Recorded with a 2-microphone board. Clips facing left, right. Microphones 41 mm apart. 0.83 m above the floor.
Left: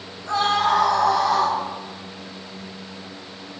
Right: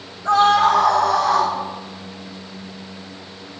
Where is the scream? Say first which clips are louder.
Right 6 dB; 85° right, 4 m; by 1.5 s 70° right (ahead or behind), 4.5 m.